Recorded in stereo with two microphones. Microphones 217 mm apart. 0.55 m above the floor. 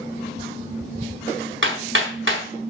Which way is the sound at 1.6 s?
60° right (ahead or behind).